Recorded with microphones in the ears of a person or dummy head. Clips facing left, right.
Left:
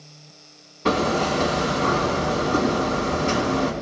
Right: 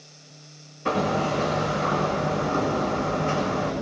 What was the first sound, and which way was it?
Hammering, 75° left (ahead or behind).